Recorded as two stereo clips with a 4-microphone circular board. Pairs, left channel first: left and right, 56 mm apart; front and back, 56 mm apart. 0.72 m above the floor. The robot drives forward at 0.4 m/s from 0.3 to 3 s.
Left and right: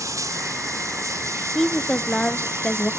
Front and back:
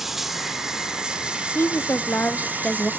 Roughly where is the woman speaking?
Ahead.